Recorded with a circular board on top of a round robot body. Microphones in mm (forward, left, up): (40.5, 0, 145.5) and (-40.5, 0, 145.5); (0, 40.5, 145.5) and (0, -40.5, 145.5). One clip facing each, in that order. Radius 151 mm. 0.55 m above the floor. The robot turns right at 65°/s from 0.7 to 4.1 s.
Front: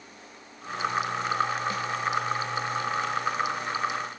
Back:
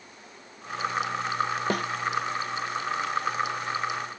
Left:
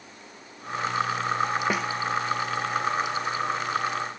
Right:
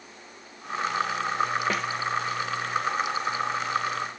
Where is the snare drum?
170° left; by 1.9 s straight behind.